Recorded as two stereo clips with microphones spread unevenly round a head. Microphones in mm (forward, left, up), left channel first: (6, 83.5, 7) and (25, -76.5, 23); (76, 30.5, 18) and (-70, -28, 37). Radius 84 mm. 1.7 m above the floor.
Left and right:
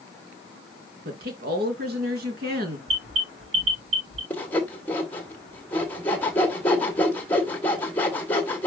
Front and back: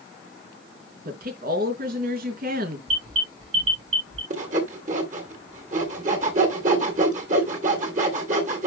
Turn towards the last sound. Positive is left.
turn(degrees=180)